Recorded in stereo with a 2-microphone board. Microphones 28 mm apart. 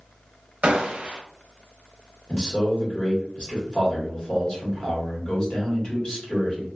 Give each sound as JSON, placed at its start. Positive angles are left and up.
{"t": 0.6, "sound": "a gunshot", "side_deg": -45, "distance_m": 0.6}
{"t": 2.3, "sound": "a man speaking", "side_deg": 35, "distance_m": 1.6}